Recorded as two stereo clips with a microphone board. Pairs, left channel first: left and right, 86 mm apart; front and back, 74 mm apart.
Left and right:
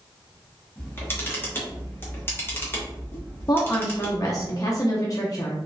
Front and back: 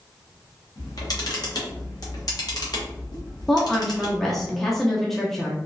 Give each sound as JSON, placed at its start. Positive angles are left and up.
{"t": 0.8, "sound": "a camera shutter", "azimuth_deg": 25, "distance_m": 0.8}
{"t": 3.5, "sound": "a woman speaking", "azimuth_deg": 85, "distance_m": 0.6}